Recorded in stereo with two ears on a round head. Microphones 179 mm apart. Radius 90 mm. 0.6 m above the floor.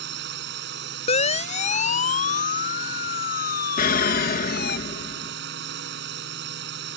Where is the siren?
35° left (ahead or behind); by 4.8 s 55° left (ahead or behind).